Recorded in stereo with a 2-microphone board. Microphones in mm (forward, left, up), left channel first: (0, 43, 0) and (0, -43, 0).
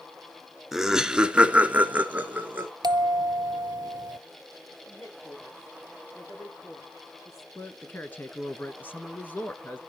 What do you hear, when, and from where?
0.7 s laughter: 5° right (ahead or behind), 1.2 m; by 2.7 s 20° right (ahead or behind), 1.5 m
2.8 s a bell: 55° right (ahead or behind), 0.7 m
4.8 s a woman speaking: 40° left (ahead or behind), 9 m
7.5 s a man speaking: 25° left (ahead or behind), 1.1 m